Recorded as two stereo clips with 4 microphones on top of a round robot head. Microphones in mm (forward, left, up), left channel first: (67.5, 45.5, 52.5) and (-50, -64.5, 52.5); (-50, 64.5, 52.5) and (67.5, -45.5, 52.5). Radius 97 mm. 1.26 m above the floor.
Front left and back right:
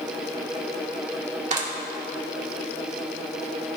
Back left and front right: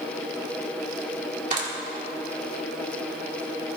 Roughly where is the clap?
Right.